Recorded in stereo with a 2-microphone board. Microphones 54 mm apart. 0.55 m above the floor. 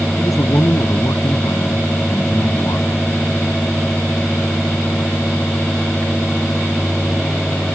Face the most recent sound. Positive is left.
turn(degrees=75)  # may be behind; listen again after turning